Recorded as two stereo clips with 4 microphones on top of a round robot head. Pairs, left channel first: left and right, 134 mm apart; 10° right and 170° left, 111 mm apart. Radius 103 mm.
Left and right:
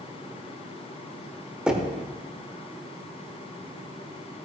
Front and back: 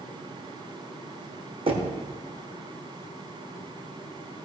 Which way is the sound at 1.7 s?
175° right.